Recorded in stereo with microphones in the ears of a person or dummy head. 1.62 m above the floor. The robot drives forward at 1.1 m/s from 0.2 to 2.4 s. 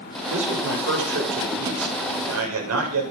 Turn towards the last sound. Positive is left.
turn(degrees=-90)